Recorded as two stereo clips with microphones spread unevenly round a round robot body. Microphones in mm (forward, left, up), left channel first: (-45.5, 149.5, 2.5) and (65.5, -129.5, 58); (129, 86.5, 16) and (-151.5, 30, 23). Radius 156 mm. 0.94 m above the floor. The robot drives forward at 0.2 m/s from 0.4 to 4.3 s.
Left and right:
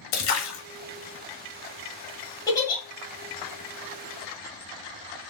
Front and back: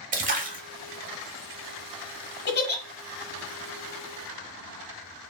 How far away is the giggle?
About 0.9 m.